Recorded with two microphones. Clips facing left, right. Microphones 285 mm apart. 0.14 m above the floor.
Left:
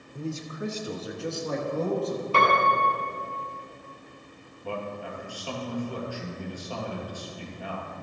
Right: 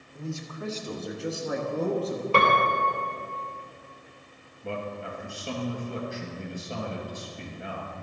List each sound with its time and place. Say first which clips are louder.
0.1 s a man speaking: left 3 dB; 35° left (ahead or behind), 1.2 m; by 2.2 s 20° right (ahead or behind), 1.9 m
2.3 s a piano: right 1 dB; 65° right (ahead or behind), 2 m
4.6 s a man speaking: even; 25° right (ahead or behind), 2.5 m